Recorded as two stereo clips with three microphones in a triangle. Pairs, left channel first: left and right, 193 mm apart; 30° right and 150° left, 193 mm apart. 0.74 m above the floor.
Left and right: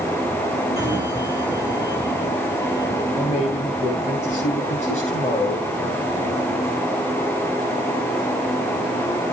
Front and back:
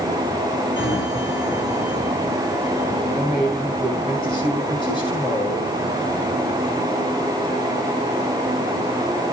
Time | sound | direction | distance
0.8 | a sliding door | 15° right | 6.5 m
3.1 | a man speaking | 35° left | 9 m